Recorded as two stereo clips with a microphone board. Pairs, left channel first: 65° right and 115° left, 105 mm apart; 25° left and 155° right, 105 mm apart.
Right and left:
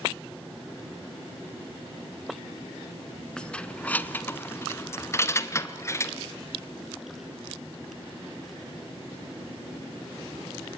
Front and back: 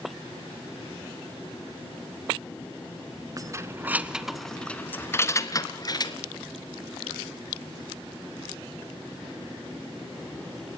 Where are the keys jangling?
145° right, 1.0 m; by 6.2 s 10° right, 1.5 m.